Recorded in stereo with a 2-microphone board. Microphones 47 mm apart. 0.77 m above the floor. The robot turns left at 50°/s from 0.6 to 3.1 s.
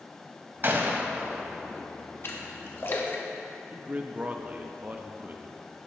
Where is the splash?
50° left (ahead or behind), 1.2 m; by 3.2 s 40° left (ahead or behind), 1.2 m.